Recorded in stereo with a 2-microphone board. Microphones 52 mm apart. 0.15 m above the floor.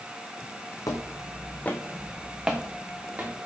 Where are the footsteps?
80° left, 0.7 m; by 3.4 s 30° right (ahead or behind), 1.2 m.